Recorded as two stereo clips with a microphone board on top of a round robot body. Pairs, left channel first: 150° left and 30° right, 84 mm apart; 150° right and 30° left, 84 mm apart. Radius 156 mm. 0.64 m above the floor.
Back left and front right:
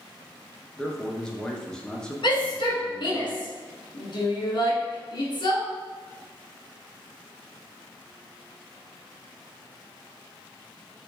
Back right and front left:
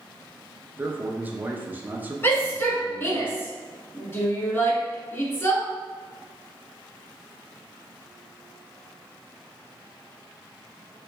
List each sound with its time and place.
0.8 s a man speaking: 80° left, 0.7 m
2.2 s a shout: 155° left, 1.7 m